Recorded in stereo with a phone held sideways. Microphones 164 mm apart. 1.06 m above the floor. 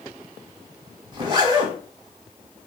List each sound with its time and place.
1.1 s a zipper: 30° right (ahead or behind), 1.2 m